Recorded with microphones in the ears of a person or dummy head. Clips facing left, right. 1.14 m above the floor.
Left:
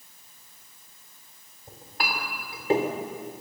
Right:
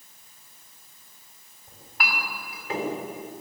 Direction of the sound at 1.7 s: 30° left (ahead or behind).